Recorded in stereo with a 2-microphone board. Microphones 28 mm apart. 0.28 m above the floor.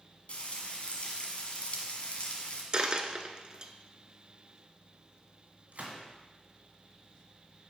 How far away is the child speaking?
No child speaking in this recording.